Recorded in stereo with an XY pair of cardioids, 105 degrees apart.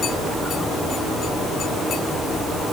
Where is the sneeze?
No sneeze in this recording.